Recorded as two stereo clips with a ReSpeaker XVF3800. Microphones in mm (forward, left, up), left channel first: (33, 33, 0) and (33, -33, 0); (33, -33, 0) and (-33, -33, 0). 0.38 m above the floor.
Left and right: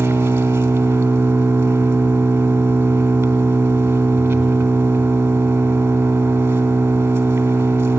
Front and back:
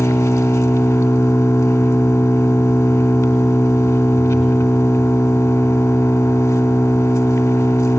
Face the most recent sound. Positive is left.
turn(degrees=-35)